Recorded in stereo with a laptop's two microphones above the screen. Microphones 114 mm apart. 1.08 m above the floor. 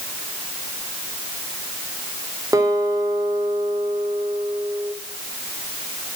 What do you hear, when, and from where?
2.5 s a guitar: 30° right (ahead or behind), 3.5 m